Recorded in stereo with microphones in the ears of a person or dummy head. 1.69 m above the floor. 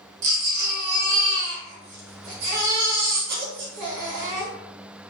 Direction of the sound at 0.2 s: 50° right (ahead or behind).